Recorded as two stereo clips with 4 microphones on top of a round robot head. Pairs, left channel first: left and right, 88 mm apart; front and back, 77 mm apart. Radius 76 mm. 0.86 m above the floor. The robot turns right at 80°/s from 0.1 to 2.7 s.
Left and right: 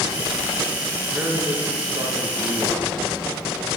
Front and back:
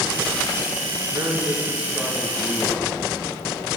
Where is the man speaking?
165° right, 1.0 m; by 3.0 s 40° right, 1.0 m.